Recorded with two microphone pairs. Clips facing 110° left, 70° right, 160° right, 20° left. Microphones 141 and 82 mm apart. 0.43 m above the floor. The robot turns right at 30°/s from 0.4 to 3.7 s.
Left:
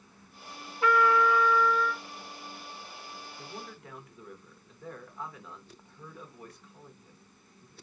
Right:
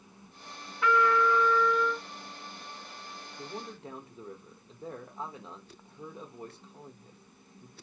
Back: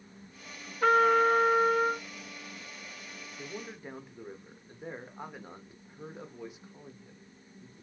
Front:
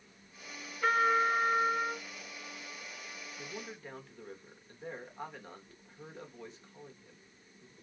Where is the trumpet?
165° left, 1.1 m; by 2.0 s 155° right, 1.1 m.